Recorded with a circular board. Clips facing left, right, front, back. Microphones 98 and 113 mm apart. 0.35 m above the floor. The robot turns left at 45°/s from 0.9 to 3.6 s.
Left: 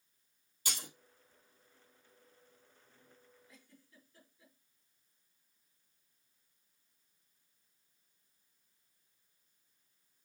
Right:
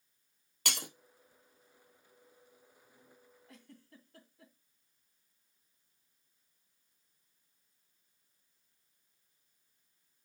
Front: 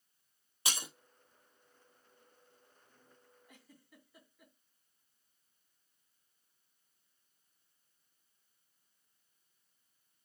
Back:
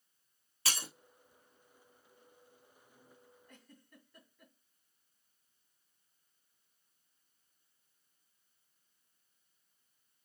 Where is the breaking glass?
70° right, 1.4 m.